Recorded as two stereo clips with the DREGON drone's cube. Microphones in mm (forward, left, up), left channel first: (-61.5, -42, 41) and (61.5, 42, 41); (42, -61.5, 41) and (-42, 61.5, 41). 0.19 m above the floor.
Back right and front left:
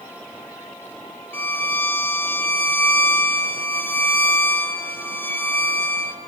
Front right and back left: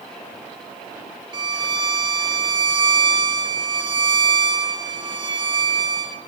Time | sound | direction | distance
1.3 | a violin | 150° left | 0.9 m